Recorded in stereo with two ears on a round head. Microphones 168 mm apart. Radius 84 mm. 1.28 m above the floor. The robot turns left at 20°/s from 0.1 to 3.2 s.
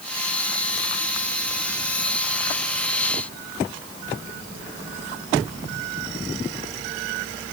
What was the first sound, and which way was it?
Only background noise.